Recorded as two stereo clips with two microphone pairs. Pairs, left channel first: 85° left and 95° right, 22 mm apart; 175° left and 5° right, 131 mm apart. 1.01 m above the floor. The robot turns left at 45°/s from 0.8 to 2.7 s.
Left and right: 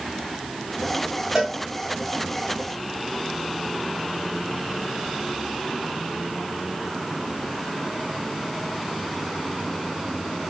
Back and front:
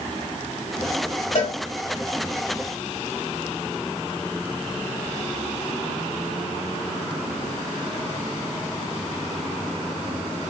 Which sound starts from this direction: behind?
A cowbell, at 1.4 s.